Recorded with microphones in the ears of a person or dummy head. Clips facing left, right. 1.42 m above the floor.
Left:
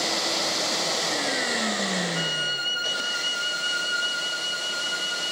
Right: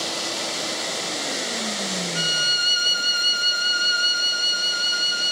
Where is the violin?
20° right (ahead or behind), 3.5 m.